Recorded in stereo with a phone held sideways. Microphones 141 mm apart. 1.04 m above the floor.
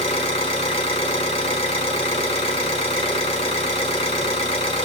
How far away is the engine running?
About 1.7 m.